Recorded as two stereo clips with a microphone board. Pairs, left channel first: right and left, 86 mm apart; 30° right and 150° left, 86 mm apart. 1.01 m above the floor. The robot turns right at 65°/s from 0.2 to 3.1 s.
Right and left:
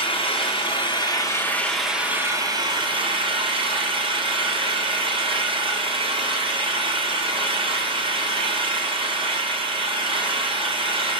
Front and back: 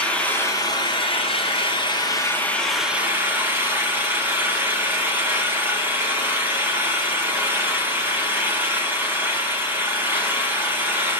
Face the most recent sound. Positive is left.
turn(degrees=85)